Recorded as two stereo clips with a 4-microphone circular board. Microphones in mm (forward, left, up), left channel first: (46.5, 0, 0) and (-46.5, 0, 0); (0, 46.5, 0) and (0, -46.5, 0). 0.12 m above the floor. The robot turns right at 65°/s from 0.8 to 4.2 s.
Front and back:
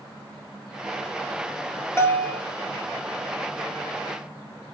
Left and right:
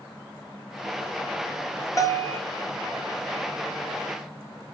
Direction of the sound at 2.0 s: 55° left.